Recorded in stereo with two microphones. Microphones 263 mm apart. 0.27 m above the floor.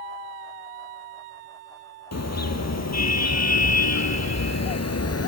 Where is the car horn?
75° left (ahead or behind), 3.5 m; by 5.3 s 65° left (ahead or behind), 2 m.